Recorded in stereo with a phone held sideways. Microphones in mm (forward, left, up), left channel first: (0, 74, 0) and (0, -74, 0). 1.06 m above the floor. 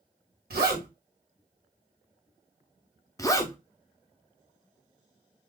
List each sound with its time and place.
0.5 s a zipper: 80° right, 1.7 m
3.2 s a zipper: 20° left (ahead or behind), 0.6 m